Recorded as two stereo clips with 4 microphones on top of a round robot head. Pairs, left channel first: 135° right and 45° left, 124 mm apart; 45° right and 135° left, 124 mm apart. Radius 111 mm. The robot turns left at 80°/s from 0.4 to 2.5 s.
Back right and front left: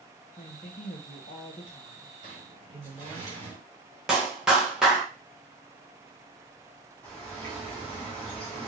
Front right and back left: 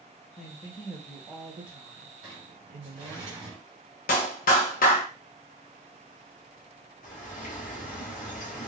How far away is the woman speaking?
About 0.8 m.